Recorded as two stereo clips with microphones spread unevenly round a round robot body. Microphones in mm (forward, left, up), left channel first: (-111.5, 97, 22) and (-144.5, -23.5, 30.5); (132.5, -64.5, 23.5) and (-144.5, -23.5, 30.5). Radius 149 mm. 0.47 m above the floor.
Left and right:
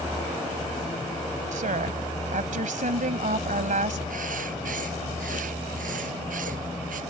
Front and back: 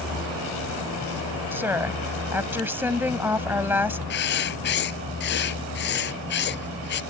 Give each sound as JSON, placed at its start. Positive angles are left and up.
{"t": 1.5, "sound": "a woman speaking", "azimuth_deg": -105}
{"t": 4.1, "sound": "writing", "azimuth_deg": -60}